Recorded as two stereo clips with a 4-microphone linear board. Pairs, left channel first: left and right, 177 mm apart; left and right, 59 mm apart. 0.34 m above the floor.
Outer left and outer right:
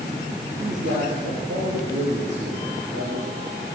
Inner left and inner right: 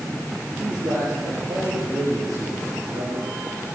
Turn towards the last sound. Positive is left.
turn(degrees=-75)  # may be behind; listen again after turning